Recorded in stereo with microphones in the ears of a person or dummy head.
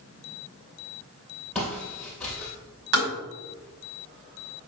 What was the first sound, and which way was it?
Footsteps, 5° left (ahead or behind).